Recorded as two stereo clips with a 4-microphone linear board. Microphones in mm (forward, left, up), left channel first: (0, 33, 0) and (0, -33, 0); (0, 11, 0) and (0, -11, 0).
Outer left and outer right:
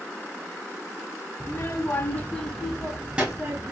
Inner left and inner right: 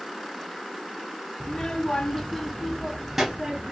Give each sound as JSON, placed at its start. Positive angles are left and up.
{"t": 1.4, "sound": "a child speaking", "side_deg": 50, "distance_m": 1.1}